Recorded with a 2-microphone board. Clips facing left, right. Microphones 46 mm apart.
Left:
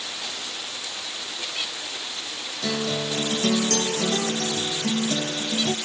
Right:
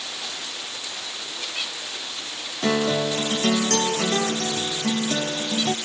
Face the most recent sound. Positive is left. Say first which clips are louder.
# right 5 dB
turn(degrees=-35)  # may be behind; listen again after turning